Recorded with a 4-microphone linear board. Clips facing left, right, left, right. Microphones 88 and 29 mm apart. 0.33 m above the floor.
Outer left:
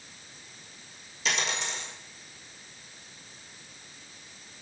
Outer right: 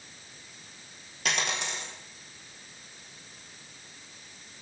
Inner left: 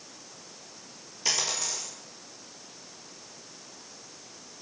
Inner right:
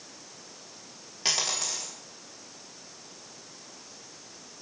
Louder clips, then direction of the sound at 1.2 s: Even, inner right 1 dB; 55° right (ahead or behind).